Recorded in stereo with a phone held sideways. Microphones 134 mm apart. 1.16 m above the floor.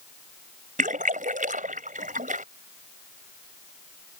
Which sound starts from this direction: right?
A splash, at 0.8 s.